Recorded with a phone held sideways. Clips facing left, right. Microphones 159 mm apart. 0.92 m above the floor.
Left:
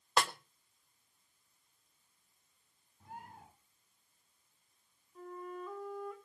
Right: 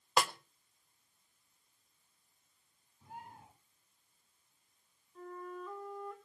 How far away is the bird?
About 10 m.